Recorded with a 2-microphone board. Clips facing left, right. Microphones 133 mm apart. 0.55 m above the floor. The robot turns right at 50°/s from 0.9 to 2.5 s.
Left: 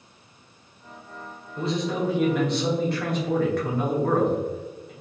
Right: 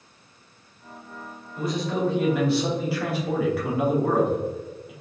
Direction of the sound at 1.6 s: 140° left.